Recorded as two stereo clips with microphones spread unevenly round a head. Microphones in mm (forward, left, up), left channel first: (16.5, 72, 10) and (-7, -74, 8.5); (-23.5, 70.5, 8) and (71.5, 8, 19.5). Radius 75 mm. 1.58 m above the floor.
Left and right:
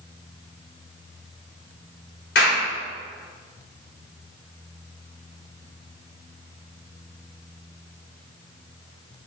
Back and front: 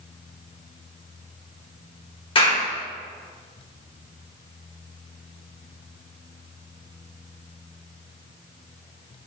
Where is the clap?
105° left, 5 m.